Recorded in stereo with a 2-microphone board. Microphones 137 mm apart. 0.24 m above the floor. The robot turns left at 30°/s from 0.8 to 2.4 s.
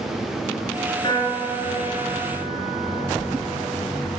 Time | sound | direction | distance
1.0 | a piano | 140° left | 4 m